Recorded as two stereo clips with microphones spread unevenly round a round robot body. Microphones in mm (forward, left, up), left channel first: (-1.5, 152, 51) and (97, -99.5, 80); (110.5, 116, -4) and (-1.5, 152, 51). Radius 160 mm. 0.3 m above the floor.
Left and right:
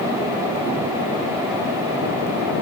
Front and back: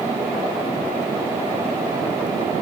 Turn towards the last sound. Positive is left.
No sound to turn to.